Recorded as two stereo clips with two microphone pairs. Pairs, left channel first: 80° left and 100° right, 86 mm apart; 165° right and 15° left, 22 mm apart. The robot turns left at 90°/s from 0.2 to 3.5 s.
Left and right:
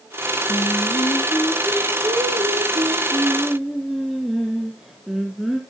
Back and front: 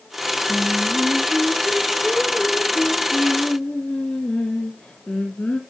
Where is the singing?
85° left, 2 m; by 5.6 s 170° left, 2 m.